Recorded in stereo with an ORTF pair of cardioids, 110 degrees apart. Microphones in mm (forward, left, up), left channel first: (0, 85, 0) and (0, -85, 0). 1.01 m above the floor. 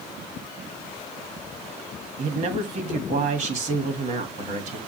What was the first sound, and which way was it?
A man speaking, 45° right.